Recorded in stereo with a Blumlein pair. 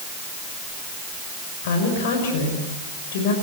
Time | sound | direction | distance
1.6 | a woman speaking | 55° left | 6 m